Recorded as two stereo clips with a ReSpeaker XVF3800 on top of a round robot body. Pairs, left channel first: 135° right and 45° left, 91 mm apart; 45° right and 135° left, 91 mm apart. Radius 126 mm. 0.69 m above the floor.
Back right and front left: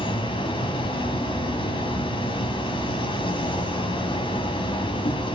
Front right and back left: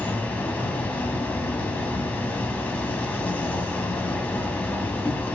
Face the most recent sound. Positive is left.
turn(degrees=-115)